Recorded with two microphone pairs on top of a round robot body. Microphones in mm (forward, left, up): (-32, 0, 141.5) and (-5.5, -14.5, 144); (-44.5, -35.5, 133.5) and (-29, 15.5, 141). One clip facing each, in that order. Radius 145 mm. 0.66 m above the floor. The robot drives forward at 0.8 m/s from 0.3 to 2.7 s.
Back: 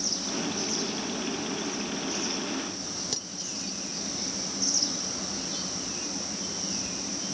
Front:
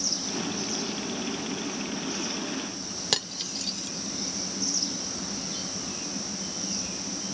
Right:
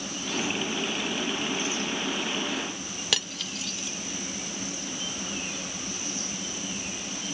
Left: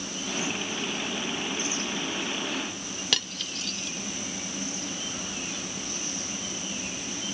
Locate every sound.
3.1 s cutlery clinking: 20° right